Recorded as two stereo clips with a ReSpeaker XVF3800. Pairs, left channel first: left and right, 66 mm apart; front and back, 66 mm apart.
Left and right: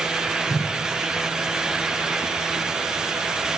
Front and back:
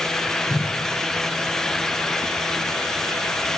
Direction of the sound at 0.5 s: 65° left.